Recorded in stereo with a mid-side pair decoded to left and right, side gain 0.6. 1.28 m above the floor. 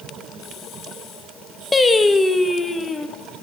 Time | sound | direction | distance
1.7 | singing | 20° left | 1.4 m